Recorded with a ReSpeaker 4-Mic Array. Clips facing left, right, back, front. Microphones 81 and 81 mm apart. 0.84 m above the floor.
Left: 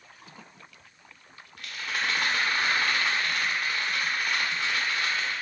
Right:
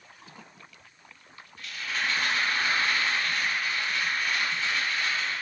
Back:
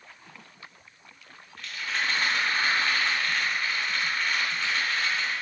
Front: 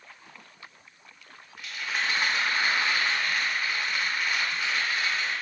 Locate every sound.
1.6 s a rattle: 80° left, 0.6 m